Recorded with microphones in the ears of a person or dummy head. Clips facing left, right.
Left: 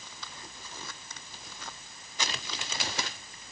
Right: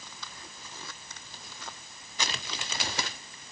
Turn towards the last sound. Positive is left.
No sound to turn to.